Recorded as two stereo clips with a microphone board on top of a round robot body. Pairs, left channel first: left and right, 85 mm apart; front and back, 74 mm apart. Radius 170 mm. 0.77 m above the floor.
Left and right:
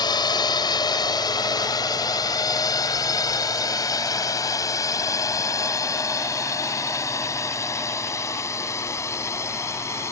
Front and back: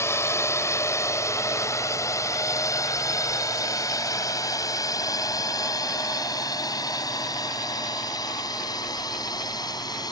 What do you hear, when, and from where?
0.0 s a drone: 55° left; by 10.1 s 30° left